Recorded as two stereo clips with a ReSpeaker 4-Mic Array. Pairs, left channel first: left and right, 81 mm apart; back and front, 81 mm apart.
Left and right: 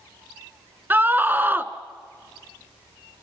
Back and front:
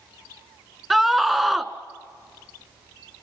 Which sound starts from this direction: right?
A scream, at 0.9 s.